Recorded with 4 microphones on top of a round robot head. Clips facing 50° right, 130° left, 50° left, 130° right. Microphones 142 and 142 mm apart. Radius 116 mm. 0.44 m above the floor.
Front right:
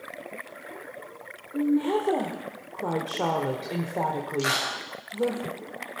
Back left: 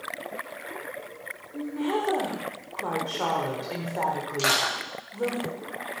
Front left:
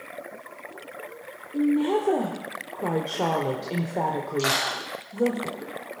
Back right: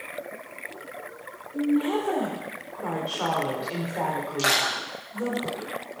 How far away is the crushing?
About 8 m.